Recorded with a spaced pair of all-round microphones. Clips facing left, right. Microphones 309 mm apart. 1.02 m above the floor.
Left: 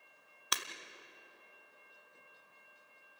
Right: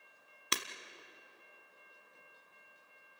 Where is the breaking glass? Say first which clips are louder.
Right 5 dB; 30° right (ahead or behind), 1.2 m.